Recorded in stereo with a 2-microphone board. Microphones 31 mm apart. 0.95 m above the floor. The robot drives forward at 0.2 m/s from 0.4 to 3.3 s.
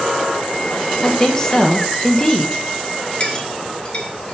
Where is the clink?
35° left (ahead or behind), 1.1 m.